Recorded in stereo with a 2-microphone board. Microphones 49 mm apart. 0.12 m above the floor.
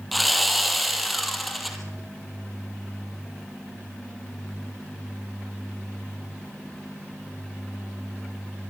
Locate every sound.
0.1 s sawing: centre (ahead or behind), 2.5 m